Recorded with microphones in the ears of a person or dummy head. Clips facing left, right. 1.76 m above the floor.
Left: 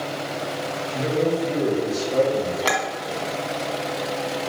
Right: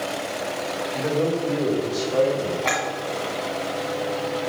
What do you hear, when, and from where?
0.9 s a man speaking: 25° left (ahead or behind), 2.5 m
2.6 s a clink: 50° left (ahead or behind), 2.5 m